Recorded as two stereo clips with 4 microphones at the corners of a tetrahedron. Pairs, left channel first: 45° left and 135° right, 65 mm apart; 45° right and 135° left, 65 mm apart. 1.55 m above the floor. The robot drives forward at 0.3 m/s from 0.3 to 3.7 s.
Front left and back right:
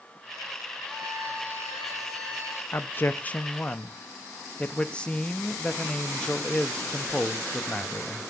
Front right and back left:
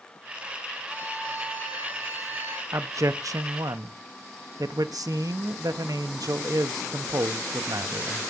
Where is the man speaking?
95° left, 0.7 m; by 8.3 s 120° left, 0.8 m.